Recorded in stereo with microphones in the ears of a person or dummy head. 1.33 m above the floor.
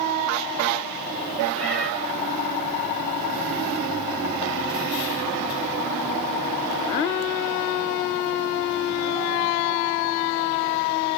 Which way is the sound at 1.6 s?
75° right (ahead or behind).